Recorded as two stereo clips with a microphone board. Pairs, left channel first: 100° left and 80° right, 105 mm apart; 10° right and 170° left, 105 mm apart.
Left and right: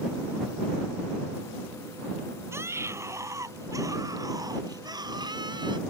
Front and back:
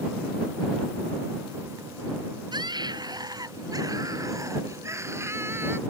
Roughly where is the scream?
Behind right.